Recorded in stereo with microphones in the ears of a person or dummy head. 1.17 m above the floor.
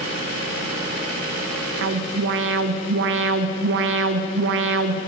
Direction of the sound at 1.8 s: 60° right (ahead or behind).